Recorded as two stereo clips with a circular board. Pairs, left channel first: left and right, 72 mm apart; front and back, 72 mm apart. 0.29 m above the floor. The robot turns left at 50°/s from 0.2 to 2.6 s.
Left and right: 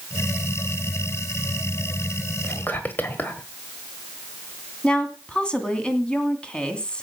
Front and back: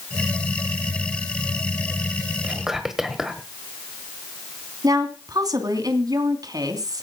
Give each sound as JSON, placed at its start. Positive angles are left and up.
{"t": 2.4, "sound": "whispering", "azimuth_deg": 110, "distance_m": 1.2}
{"t": 4.8, "sound": "a woman speaking", "azimuth_deg": 165, "distance_m": 2.5}